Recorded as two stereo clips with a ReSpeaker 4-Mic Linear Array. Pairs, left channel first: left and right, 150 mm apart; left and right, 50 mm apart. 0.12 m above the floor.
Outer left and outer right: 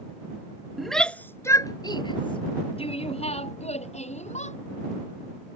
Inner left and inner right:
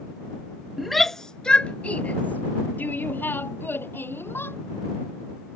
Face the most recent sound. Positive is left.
turn(degrees=50)  # may be behind; listen again after turning